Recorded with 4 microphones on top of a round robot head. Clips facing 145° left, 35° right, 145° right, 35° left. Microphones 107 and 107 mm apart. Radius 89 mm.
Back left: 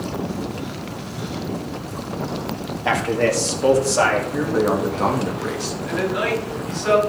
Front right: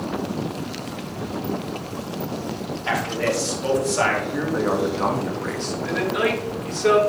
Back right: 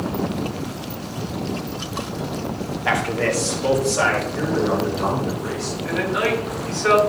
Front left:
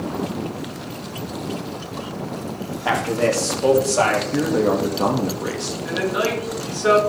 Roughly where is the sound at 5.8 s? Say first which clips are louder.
Even, even; ahead right.